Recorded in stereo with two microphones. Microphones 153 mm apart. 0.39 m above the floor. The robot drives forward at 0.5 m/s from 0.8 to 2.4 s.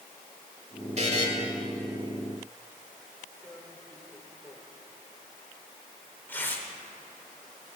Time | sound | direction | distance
1.0 | a buzzer | 45° right (ahead or behind) | 1.7 m
3.4 | tearing paper | 10° left (ahead or behind) | 1.3 m